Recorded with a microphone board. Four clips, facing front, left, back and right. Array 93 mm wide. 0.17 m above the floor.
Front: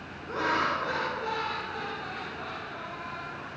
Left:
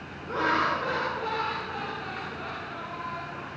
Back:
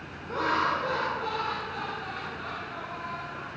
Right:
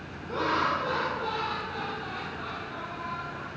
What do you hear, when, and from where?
0.3 s laughter: 65° left, 1.9 m; by 3.5 s 55° left, 3.5 m